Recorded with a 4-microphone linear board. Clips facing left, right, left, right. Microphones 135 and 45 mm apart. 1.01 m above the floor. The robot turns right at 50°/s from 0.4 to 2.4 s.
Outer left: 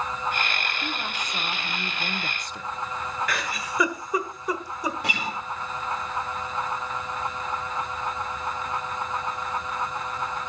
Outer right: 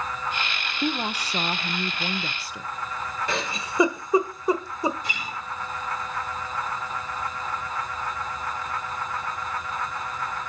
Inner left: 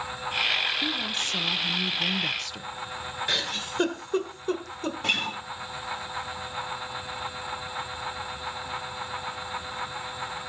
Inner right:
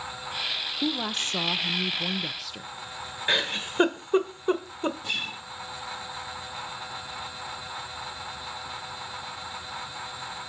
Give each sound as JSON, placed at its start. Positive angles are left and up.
{"t": 0.8, "sound": "a woman speaking", "azimuth_deg": -90, "distance_m": 0.7}
{"t": 3.3, "sound": "a giggle", "side_deg": -25, "distance_m": 1.5}
{"t": 5.0, "sound": "a guitar", "side_deg": 75, "distance_m": 2.5}